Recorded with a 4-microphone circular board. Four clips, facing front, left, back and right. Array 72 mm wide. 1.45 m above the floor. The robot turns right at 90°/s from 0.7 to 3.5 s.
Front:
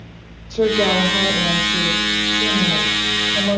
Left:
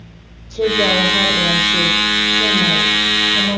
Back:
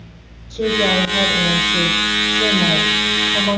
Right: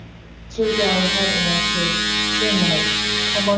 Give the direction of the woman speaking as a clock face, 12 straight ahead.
12 o'clock.